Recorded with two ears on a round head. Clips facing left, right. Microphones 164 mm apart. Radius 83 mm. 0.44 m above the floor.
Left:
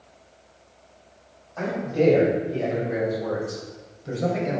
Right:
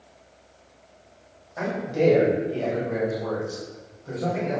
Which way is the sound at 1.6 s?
15° right (ahead or behind).